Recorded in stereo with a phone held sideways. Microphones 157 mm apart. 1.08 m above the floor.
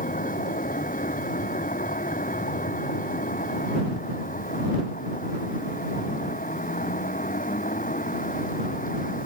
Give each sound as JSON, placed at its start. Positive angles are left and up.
{"t": 0.0, "sound": "a vehicle", "side_deg": 60}